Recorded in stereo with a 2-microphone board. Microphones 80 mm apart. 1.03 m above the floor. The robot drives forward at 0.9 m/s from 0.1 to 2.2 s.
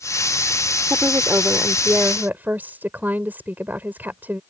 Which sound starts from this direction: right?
A woman speaking, at 0.9 s.